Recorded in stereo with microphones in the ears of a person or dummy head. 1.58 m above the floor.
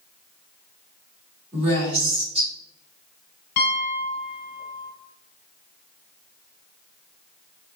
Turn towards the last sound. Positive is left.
turn(degrees=65)  # may be behind; listen again after turning